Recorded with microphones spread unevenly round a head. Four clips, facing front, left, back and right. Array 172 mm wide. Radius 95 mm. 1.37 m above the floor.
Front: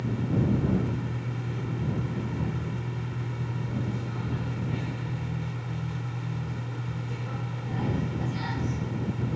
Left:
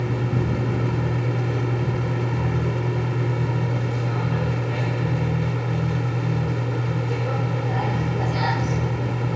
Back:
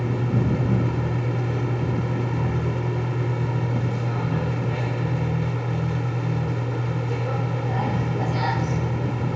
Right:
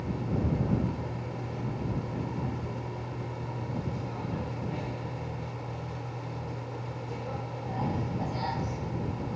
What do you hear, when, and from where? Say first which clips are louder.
0.0 s a machine running: left 7 dB, back 3 dB; 105° left